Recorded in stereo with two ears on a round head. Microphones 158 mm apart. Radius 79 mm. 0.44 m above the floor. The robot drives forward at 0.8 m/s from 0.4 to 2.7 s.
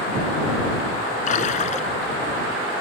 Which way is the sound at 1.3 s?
45° left (ahead or behind).